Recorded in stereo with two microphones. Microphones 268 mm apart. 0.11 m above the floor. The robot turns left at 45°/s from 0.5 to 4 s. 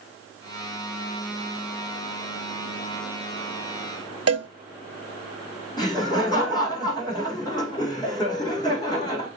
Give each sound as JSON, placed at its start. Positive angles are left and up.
{"t": 4.3, "sound": "a cowbell", "side_deg": -65, "distance_m": 0.5}
{"t": 5.8, "sound": "laughter", "side_deg": 15, "distance_m": 5.5}